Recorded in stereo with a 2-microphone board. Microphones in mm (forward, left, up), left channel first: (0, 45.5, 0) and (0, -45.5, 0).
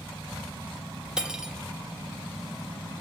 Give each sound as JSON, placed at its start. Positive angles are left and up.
{"t": 1.2, "sound": "cutlery clinking", "side_deg": -10, "distance_m": 0.5}